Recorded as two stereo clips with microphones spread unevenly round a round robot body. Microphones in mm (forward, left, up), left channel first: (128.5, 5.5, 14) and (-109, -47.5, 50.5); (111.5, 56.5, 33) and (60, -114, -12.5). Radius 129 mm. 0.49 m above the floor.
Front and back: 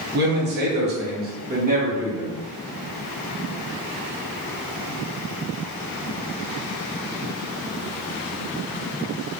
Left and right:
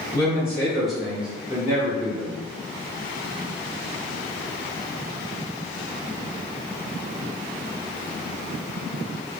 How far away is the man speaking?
About 1.2 m.